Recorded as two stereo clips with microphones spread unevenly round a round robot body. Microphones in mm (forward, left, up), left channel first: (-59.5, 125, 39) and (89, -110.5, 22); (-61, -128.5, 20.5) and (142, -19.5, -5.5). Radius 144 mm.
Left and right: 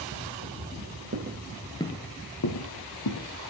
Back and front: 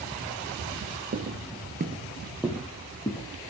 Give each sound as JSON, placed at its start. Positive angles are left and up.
{"t": 1.1, "sound": "footsteps", "azimuth_deg": -15, "distance_m": 1.1}